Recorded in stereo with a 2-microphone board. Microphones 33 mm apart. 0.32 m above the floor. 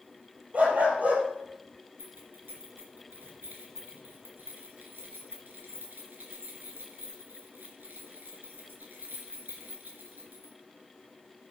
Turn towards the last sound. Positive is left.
turn(degrees=-75)  # may be behind; listen again after turning